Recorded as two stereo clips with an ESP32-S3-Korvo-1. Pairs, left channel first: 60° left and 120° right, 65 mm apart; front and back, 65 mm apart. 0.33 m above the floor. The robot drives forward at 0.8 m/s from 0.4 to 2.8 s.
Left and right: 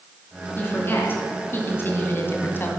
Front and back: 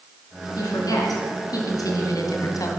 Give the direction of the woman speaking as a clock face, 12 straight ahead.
12 o'clock.